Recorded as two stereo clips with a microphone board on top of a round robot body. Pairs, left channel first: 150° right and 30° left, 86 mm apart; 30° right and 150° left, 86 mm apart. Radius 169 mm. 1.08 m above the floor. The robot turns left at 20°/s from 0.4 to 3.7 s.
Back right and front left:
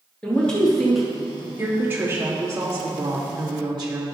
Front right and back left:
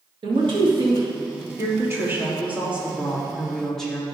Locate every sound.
0.2 s a man speaking: 130° left, 2 m; by 1.5 s 110° left, 2 m
1.6 s a woman speaking: 100° left, 2.5 m; by 4.0 s 55° left, 2.5 m